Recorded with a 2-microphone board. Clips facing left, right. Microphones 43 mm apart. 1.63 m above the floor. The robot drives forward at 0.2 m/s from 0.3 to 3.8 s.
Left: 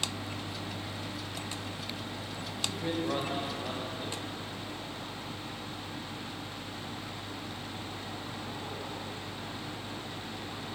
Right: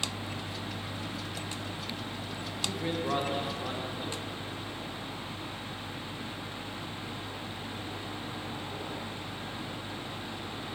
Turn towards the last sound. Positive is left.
turn(degrees=-15)  # may be behind; listen again after turning